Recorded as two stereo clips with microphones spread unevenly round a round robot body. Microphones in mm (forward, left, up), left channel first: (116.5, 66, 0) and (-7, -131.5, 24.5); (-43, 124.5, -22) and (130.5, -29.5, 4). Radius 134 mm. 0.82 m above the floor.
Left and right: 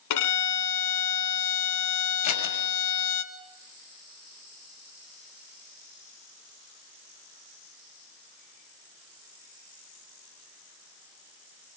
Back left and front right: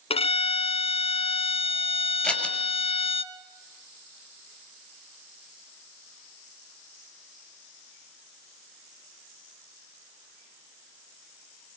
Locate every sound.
0.1 s a violin: 70° left, 1.7 m
2.2 s scissors: 50° left, 6 m